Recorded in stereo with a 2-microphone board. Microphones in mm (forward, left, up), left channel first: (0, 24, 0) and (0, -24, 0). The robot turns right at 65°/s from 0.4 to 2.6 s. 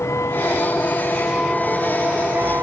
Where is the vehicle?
85° left; by 2.6 s 55° right (ahead or behind).